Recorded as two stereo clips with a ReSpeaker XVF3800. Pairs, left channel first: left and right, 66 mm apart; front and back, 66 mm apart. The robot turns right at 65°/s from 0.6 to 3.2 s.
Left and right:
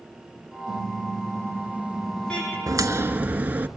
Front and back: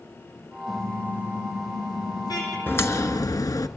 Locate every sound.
0.7 s a car horn: 95° right, 7.5 m; by 2.6 s 30° left, 7.5 m
2.7 s a crack: 60° right, 1.2 m; by 3.7 s 25° right, 1.2 m